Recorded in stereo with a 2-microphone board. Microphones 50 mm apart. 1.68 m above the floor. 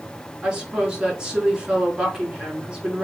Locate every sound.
0.4 s a woman speaking: 15° right (ahead or behind), 4.5 m